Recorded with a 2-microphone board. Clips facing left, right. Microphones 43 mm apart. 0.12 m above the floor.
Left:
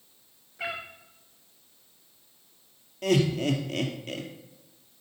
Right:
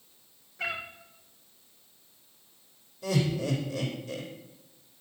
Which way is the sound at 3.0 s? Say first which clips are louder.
Left 5 dB; 65° left (ahead or behind).